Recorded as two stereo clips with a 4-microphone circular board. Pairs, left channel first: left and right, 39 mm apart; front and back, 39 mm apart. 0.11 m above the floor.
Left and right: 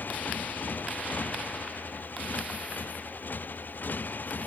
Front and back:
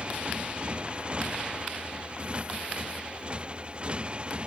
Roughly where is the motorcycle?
Behind left.